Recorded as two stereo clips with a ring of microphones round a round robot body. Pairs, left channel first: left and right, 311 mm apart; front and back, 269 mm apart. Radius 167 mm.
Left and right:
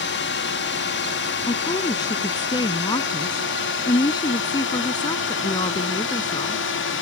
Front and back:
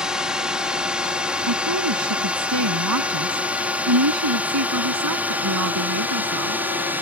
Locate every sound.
0.0 s a drone: 95° left; by 7.0 s 100° left
1.5 s a woman speaking: 165° left